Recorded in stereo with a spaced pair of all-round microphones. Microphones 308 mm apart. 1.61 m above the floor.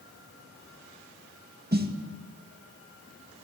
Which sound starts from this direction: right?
A snare drum, at 1.7 s.